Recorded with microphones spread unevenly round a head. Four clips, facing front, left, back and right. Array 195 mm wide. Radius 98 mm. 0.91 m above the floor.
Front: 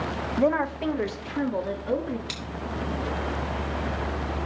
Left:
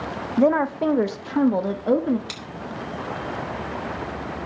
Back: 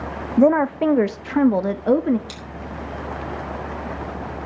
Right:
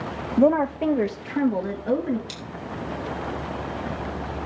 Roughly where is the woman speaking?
Behind.